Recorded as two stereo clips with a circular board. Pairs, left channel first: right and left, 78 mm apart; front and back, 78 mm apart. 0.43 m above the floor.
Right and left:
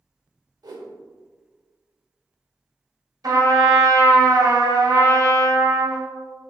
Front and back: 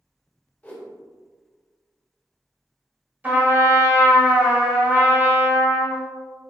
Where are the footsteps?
No footsteps in this recording.